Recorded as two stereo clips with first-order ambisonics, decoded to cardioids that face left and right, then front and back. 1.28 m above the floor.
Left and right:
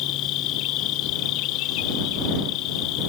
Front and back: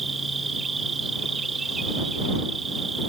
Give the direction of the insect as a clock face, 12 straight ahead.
8 o'clock.